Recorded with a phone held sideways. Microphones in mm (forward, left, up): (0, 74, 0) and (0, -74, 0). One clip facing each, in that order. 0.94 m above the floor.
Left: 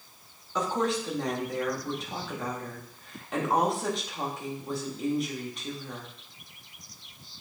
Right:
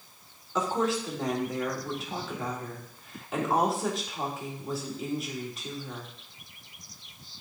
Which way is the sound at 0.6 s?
5° right (ahead or behind).